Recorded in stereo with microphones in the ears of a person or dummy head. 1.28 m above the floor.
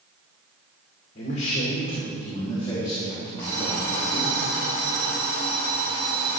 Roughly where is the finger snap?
I don't hear a finger snap.